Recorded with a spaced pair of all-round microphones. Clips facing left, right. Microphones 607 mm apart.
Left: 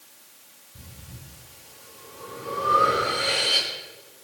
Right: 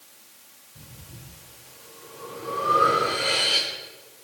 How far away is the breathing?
About 3.5 m.